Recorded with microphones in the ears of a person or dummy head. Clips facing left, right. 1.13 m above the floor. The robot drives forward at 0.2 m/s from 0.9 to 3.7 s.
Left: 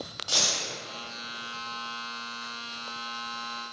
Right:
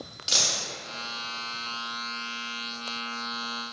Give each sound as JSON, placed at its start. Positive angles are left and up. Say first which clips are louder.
{"t": 0.3, "sound": "a dropped coin", "louder": "even", "side_deg": -25, "distance_m": 0.5}